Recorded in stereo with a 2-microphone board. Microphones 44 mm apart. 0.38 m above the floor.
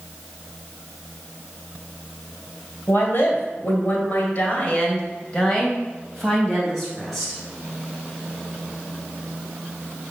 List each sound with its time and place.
2.9 s a woman speaking: 55° left (ahead or behind), 2.5 m; by 7.4 s centre (ahead or behind), 3.5 m